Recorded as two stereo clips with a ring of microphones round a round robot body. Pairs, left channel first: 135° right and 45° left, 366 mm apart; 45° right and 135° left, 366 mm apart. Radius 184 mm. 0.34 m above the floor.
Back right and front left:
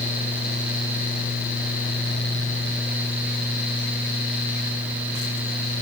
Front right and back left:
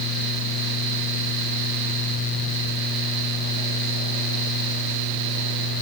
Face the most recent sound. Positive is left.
No sound to turn to.